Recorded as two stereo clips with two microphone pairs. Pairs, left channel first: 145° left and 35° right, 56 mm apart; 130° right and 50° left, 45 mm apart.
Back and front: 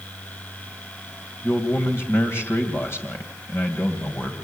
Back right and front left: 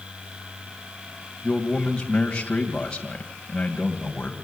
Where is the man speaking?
170° left, 2.5 m.